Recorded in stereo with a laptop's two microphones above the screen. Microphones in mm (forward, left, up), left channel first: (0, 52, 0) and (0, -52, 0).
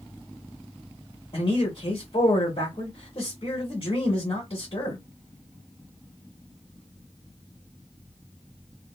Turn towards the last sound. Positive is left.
turn(degrees=50)  # may be behind; listen again after turning